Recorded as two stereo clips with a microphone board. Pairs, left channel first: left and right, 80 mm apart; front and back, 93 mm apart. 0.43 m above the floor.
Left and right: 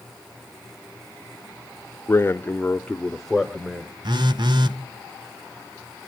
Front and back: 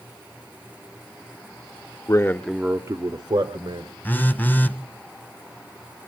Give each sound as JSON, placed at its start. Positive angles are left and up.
{"t": 2.1, "sound": "a man speaking", "azimuth_deg": 40, "distance_m": 1.1}
{"t": 4.0, "sound": "a phone buzzing", "azimuth_deg": -70, "distance_m": 1.1}